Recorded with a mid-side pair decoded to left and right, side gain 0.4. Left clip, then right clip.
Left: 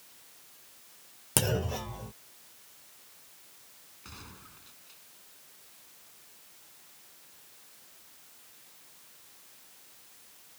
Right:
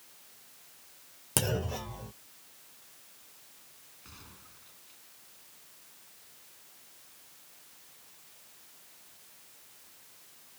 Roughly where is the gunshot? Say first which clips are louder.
Left 5 dB; ahead left.